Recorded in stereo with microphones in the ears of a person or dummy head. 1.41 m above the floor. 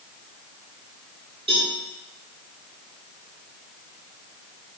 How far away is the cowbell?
About 1.3 m.